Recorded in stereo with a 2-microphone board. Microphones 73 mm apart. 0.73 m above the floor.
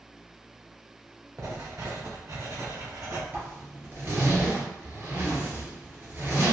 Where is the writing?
50° right (ahead or behind), 0.9 m.